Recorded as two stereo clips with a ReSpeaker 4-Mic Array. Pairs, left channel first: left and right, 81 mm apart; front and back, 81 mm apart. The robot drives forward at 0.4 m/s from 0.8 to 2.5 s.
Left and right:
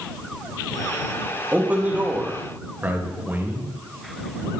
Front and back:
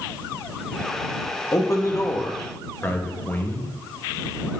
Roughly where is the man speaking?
Ahead right.